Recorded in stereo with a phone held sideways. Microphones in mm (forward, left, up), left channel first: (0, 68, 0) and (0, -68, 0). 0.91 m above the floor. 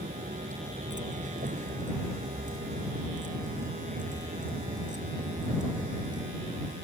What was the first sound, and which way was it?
A vehicle, 70° right (ahead or behind).